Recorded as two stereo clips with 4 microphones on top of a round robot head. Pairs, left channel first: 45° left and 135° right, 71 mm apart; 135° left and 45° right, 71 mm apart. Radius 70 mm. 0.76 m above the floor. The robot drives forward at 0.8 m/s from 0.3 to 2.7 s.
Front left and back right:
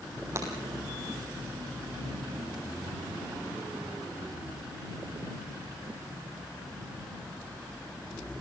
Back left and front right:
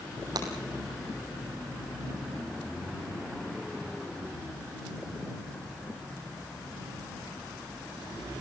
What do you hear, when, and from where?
0.3 s breaking glass: 80° right, 3.5 m